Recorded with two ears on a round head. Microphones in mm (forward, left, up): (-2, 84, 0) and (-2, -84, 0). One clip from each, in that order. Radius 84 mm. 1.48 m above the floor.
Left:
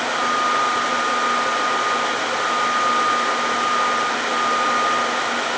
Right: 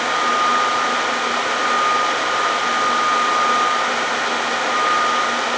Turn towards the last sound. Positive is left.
No sound to turn to.